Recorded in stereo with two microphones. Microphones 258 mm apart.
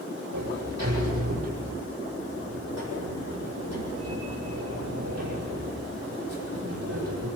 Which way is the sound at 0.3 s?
75° right (ahead or behind).